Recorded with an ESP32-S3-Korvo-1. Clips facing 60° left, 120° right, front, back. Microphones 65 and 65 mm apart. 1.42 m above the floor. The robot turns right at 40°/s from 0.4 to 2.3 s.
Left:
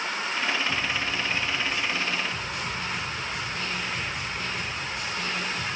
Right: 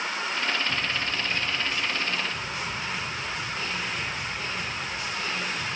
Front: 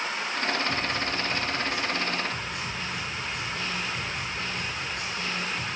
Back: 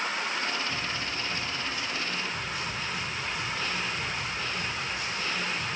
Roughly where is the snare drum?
Ahead right.